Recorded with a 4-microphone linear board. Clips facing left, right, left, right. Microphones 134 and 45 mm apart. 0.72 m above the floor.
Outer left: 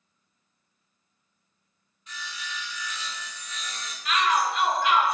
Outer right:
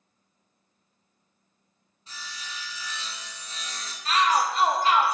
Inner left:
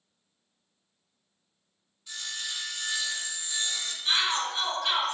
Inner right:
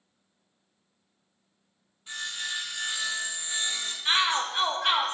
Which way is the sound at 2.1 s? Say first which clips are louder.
Outer left 3 dB, inner right 3 dB; 30° right (ahead or behind).